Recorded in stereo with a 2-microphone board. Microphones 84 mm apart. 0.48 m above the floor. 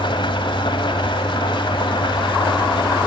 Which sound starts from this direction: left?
An engine running, at 0.0 s.